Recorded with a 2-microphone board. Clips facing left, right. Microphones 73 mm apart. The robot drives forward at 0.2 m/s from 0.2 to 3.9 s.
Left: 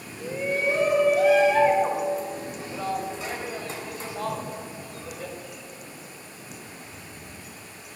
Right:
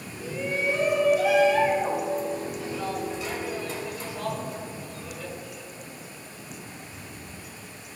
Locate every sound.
0.2 s a shout: 35° left (ahead or behind), 1.7 m; by 5.3 s 25° left (ahead or behind), 2.5 m